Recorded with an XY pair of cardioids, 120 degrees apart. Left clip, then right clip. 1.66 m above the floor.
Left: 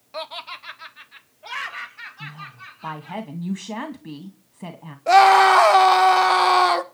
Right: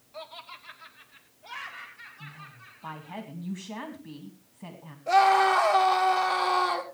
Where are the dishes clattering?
I don't hear dishes clattering.